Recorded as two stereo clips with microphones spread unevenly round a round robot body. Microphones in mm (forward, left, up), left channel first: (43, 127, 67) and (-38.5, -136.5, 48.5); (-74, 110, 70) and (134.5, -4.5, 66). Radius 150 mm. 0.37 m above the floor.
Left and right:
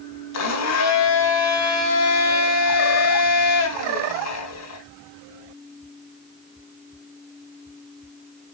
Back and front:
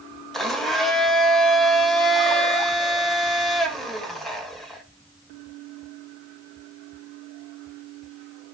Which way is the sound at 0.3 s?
60° left.